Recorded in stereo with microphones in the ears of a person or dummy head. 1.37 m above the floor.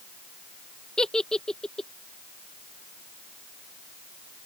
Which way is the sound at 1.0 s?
5° right (ahead or behind).